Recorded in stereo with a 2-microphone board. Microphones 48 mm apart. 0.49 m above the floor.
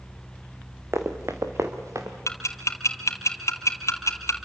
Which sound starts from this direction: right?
Running footsteps, at 0.9 s.